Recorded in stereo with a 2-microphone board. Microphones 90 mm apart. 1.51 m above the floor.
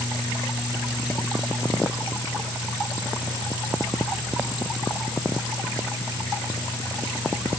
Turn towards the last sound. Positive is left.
No sound to turn to.